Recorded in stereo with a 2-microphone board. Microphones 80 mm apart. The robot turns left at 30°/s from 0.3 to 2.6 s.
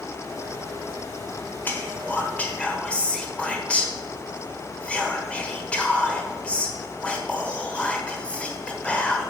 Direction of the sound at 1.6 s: 25° left (ahead or behind).